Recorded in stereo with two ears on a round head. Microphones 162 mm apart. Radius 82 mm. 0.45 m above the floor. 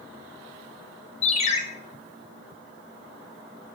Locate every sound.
1.2 s a ringtone: 40° left (ahead or behind), 0.6 m